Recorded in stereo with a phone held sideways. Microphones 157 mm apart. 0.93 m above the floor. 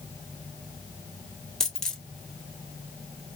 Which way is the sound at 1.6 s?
5° left (ahead or behind).